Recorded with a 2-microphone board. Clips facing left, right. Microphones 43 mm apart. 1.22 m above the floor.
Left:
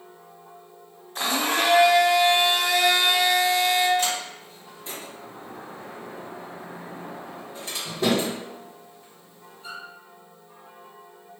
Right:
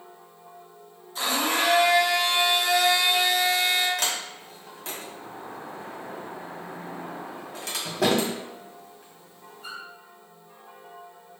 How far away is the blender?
About 1.4 m.